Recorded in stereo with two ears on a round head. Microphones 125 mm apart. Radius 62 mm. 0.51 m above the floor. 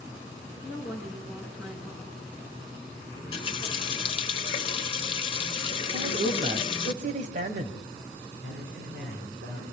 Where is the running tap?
40° left (ahead or behind), 1.2 m.